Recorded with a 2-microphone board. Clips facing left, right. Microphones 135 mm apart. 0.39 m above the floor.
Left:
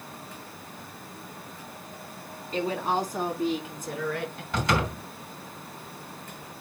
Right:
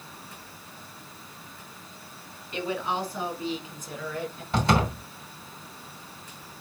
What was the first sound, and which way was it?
A woman speaking, 35° left (ahead or behind).